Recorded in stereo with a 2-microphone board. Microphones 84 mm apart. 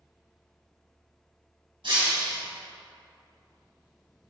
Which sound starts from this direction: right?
Breaking glass, at 1.8 s.